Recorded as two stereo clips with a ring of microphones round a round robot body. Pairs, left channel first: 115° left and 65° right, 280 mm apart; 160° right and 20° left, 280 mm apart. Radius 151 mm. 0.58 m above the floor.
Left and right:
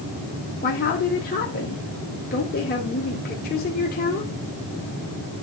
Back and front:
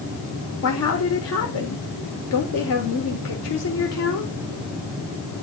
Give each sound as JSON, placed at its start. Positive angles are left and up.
{"t": 0.6, "sound": "a woman speaking", "azimuth_deg": 170, "distance_m": 1.6}